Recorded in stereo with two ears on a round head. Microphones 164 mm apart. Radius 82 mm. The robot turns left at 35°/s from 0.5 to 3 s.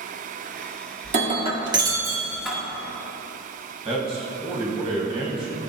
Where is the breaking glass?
130° right, 1.3 m; by 2.6 s 175° left, 1.3 m.